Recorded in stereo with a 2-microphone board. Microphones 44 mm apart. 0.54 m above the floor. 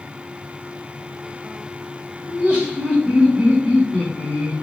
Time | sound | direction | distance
2.3 | laughter | 30° right (ahead or behind) | 1.6 m